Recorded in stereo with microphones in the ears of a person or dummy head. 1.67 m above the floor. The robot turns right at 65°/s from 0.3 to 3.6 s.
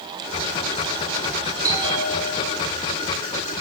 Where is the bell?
20° right, 3.5 m; by 2.6 s 45° left, 3.5 m.